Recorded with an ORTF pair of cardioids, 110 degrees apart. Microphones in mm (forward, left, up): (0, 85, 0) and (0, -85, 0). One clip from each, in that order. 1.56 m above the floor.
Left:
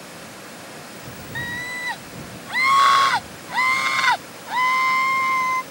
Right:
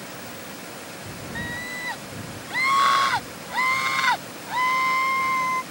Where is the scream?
25° left; by 5.6 s 20° left.